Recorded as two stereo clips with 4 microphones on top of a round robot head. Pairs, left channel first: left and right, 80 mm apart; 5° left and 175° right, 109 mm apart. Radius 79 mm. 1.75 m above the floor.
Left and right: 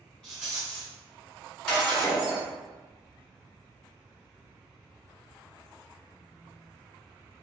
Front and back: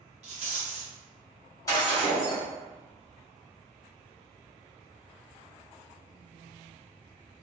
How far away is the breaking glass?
About 1.4 m.